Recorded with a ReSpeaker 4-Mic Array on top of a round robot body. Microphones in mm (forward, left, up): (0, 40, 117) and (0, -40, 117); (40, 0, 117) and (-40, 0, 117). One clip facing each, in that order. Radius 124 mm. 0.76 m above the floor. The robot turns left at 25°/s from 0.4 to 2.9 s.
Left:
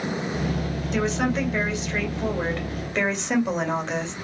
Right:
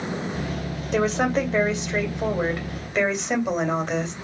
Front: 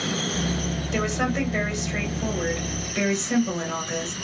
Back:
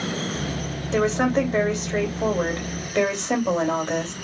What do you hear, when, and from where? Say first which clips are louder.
0.9 s a woman speaking: right 3 dB, back 6 dB; 125° right, 2 m; by 4.1 s 175° right, 2 m